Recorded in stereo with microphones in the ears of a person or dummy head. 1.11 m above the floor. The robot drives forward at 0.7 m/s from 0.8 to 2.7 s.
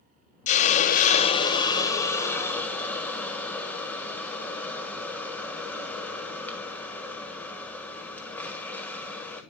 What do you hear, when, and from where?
0.5 s a hiss: 35° left (ahead or behind), 0.7 m; by 9.4 s 15° left (ahead or behind), 1.5 m